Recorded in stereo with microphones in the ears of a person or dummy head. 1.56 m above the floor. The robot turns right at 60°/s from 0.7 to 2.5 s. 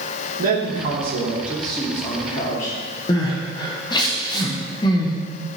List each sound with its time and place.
0.4 s a man speaking: 55° right, 3 m; by 2.8 s 55° left, 3 m
3.1 s crying: 25° left (ahead or behind), 1.3 m